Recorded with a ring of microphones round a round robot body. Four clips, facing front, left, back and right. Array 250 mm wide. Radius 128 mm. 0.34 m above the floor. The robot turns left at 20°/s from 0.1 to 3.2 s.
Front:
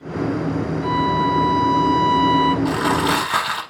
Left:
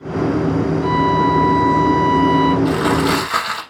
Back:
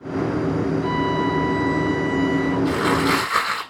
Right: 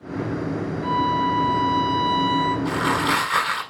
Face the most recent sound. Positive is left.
turn(degrees=35)